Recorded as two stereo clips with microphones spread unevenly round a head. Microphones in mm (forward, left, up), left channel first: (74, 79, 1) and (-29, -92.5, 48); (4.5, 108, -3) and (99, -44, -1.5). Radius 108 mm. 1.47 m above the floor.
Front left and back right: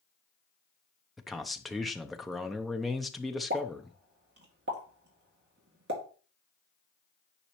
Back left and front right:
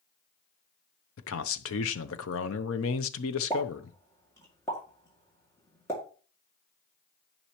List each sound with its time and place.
1.2 s a man speaking: 150° left, 0.6 m
3.5 s a pop: 160° right, 2 m